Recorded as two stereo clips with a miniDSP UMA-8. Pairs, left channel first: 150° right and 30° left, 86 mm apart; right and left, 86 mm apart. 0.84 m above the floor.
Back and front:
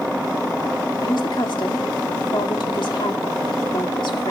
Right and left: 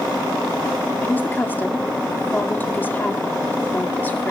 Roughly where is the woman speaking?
Behind right.